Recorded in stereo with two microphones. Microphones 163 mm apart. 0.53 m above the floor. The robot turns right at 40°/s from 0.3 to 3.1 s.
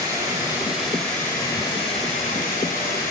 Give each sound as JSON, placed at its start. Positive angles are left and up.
{"t": 0.0, "sound": "running water", "azimuth_deg": -25, "distance_m": 2.5}